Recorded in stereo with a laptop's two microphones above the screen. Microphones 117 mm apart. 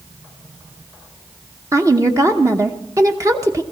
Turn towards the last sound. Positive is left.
turn(degrees=-25)  # may be behind; listen again after turning